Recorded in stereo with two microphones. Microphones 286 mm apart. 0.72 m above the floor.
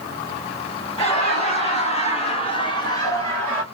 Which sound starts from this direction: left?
Laughter, at 1.0 s.